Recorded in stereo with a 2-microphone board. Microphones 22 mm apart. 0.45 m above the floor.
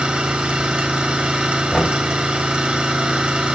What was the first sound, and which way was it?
An engine running, 65° right (ahead or behind).